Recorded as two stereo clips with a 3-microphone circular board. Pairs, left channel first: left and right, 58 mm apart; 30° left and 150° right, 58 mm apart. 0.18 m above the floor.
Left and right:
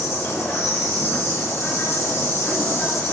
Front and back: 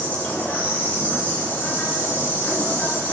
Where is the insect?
85° left, 3.5 m.